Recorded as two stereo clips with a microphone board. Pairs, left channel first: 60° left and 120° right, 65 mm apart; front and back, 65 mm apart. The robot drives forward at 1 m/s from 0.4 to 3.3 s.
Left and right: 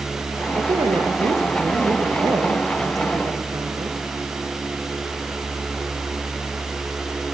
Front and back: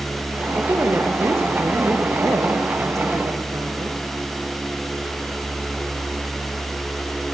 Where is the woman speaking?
125° right, 5.5 m; by 4.0 s 145° right, 7.5 m.